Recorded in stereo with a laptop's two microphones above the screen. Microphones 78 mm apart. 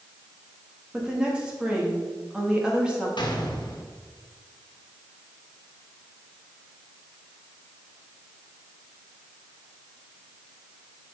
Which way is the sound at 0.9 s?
10° right (ahead or behind).